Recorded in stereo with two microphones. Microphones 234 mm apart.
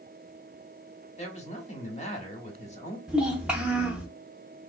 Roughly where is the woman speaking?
Left.